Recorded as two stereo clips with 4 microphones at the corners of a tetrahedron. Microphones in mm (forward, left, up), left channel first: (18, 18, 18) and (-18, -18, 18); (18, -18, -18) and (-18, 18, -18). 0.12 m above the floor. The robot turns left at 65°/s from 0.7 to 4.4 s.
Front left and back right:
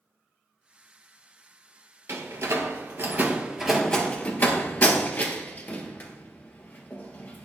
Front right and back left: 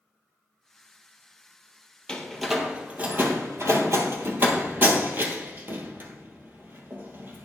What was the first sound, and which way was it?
A door slam, 115° right.